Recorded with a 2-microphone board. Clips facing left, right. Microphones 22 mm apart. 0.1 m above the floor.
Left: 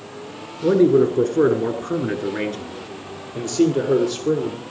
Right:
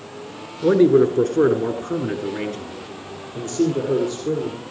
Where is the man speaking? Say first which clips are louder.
Right 1 dB; 25° right (ahead or behind), 1.4 m; by 4.6 s 55° left (ahead or behind), 2.5 m.